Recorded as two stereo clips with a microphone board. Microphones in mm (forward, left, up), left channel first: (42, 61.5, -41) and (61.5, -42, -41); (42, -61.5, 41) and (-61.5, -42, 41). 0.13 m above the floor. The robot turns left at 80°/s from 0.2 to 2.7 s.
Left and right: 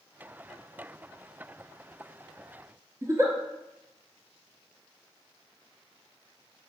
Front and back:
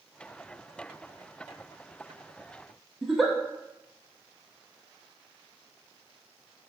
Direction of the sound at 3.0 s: 100° right.